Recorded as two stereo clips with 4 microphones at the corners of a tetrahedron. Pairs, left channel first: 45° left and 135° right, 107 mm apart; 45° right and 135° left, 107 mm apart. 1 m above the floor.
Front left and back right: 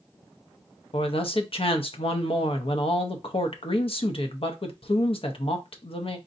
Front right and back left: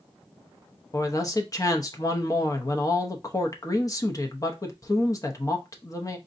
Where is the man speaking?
10° left, 0.7 m.